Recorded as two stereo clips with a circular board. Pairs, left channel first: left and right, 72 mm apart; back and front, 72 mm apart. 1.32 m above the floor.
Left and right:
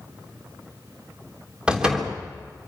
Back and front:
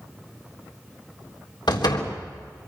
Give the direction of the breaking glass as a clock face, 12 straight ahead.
No breaking glass in this recording.